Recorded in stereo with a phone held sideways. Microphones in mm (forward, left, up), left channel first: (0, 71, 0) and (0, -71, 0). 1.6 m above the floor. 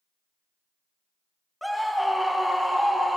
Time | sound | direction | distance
1.6 | a scream | centre (ahead or behind) | 1.4 m